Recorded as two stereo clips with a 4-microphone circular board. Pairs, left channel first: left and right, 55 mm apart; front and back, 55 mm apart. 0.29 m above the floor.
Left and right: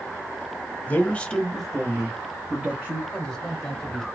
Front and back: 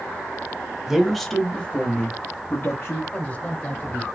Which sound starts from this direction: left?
A man speaking, at 0.9 s.